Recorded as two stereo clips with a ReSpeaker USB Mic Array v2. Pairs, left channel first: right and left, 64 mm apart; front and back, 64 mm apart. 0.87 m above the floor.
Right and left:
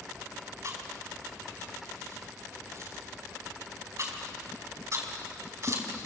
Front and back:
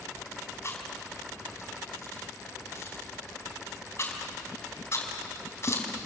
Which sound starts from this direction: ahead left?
Chewing, at 0.6 s.